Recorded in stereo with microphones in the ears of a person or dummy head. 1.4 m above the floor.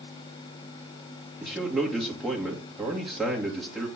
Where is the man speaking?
5° right (ahead or behind), 1.8 m.